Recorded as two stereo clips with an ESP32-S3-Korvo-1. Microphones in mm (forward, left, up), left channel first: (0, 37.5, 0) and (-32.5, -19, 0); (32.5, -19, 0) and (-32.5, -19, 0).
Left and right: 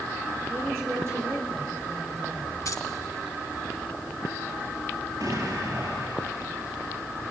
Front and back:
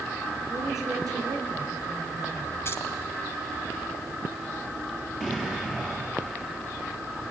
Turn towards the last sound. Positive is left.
turn(degrees=-100)